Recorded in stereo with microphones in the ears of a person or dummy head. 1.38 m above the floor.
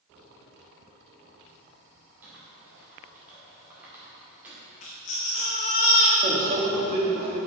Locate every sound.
2.2 s typing on a keyboard: 5° right (ahead or behind), 2 m
4.8 s a baby crying: 35° left (ahead or behind), 0.8 m
6.2 s a microwave: 40° right (ahead or behind), 1.6 m